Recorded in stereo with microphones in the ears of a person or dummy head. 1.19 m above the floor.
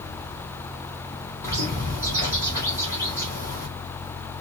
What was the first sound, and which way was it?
A bird, 25° left (ahead or behind).